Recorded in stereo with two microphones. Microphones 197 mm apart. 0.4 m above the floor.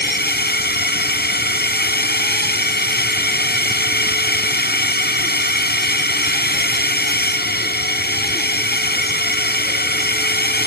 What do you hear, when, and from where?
0.0 s a drone: 55° left (ahead or behind)